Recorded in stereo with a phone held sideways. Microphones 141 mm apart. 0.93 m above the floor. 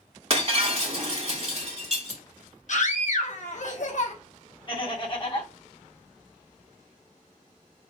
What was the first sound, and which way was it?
Breaking glass, 50° right (ahead or behind).